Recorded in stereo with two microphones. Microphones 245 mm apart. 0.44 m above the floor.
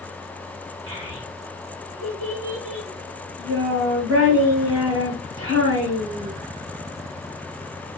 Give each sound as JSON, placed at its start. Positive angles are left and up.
{"t": 0.9, "sound": "a child speaking", "side_deg": -60, "distance_m": 1.9}